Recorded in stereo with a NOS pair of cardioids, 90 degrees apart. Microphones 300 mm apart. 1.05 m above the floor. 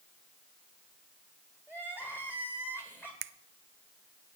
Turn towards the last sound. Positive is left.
turn(degrees=-45)